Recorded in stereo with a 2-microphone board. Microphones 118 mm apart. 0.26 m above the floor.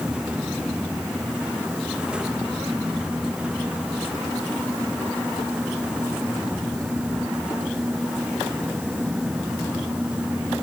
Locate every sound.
Only background noise.